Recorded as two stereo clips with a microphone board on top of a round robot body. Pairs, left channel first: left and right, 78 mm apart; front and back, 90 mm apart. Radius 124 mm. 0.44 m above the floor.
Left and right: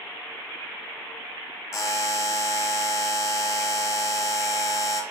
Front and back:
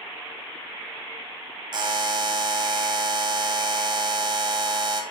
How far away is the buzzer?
About 0.8 m.